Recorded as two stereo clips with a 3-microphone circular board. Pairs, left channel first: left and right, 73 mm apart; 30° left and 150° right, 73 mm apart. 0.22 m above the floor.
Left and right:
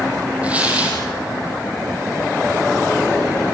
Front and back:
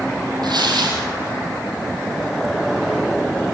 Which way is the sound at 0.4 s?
160° right.